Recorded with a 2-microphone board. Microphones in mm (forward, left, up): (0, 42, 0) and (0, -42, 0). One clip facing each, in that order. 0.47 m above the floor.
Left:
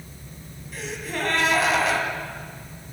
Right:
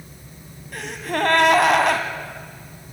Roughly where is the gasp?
Right.